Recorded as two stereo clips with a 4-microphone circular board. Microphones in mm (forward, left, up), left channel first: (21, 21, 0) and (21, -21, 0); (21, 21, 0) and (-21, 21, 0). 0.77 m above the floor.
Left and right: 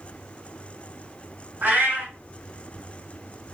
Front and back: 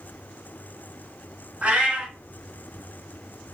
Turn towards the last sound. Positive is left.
turn(degrees=-120)